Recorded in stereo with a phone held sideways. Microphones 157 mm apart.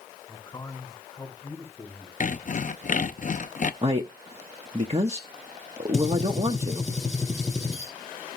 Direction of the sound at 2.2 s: 55° left (ahead or behind).